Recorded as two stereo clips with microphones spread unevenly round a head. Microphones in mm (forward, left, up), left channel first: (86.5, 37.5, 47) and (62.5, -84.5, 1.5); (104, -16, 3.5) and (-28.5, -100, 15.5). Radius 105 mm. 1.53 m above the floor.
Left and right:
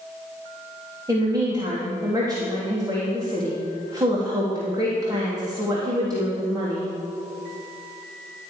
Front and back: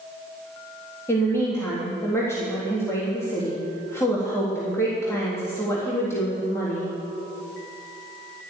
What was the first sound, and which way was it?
A woman speaking, 40° right.